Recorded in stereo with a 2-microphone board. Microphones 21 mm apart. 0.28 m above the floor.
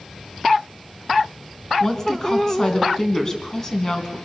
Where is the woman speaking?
20° left (ahead or behind), 3 m.